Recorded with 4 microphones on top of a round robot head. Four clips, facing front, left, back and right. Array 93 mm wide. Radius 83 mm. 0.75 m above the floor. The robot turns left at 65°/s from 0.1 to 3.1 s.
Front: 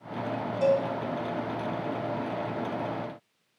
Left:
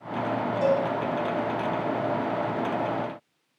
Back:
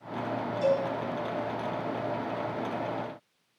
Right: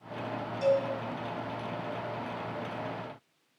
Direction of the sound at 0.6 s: 40° left.